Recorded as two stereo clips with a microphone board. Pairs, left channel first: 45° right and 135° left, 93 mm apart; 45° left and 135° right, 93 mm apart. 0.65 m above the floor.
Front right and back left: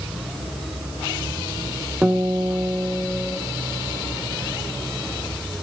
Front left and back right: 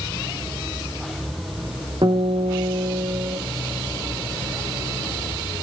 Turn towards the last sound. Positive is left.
turn(degrees=-145)